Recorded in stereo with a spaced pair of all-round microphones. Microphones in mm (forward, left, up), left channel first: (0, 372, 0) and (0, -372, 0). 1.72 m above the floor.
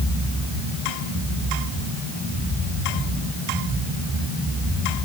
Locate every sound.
Only background noise.